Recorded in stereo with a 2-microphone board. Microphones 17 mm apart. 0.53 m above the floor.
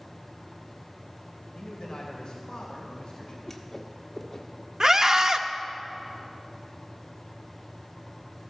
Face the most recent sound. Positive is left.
turn(degrees=-35)  # may be behind; listen again after turning